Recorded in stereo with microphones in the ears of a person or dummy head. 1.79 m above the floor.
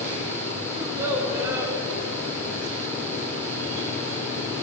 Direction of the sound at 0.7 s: 25° right (ahead or behind).